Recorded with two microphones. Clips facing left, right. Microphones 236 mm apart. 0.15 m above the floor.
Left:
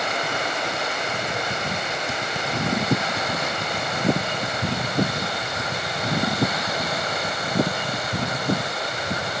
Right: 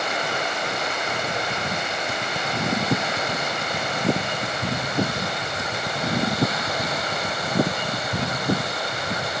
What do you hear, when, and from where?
Only background noise.